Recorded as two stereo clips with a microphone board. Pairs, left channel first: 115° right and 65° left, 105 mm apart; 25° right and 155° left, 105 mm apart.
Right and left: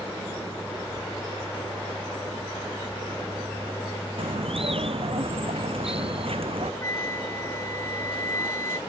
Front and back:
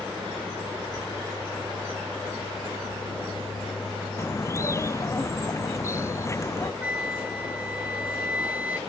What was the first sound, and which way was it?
A bird, 40° left.